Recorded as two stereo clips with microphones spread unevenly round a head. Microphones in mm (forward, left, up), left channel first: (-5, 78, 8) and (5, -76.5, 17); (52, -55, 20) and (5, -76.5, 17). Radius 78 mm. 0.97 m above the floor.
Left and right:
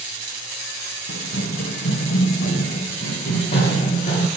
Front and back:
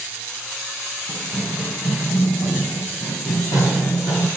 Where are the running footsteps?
65° left, 3 m; by 4.3 s 35° left, 4.5 m.